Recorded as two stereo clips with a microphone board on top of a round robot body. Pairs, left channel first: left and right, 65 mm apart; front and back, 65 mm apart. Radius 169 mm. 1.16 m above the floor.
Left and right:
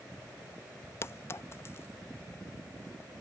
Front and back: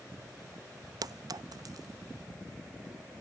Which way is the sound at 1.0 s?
150° left.